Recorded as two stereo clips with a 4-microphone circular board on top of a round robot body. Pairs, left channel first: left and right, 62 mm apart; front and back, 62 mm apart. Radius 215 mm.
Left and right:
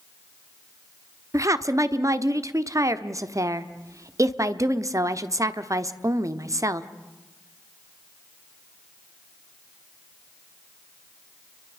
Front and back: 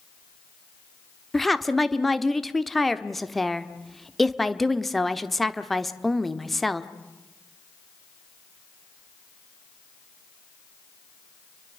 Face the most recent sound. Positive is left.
turn(degrees=-90)